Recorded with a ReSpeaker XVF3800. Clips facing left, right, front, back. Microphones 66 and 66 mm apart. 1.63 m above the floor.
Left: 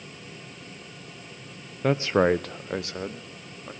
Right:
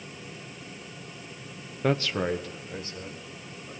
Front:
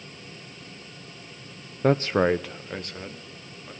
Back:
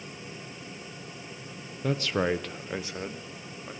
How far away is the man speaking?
About 0.7 m.